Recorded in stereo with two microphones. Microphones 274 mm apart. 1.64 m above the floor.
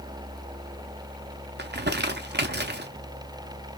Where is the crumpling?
40° right (ahead or behind), 0.5 m.